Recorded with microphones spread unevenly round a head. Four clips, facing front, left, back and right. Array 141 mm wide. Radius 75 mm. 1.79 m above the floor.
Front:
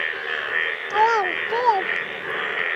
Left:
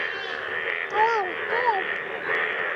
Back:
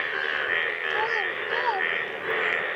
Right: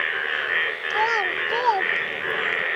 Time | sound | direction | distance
0.9 | a child speaking | 30° left | ?